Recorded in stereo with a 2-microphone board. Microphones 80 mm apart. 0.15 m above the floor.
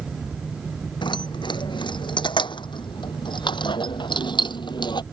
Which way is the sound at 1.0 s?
70° left (ahead or behind).